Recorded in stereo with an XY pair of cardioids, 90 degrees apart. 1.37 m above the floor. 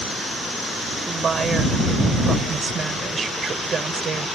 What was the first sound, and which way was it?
A woman speaking, 45° right.